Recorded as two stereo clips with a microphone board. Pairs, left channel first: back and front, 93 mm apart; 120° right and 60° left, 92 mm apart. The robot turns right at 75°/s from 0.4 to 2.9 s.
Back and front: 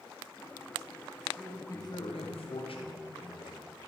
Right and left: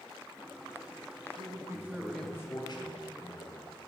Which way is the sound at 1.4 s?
95° left.